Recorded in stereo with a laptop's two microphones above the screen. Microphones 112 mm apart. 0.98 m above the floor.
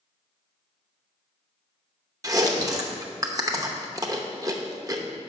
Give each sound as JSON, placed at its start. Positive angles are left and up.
{"t": 2.2, "sound": "chewing", "side_deg": -30, "distance_m": 0.8}